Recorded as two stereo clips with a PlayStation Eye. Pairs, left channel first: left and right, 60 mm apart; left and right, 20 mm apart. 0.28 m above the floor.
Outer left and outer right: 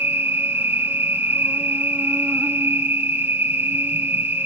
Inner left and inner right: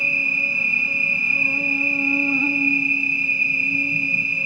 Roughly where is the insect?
Right.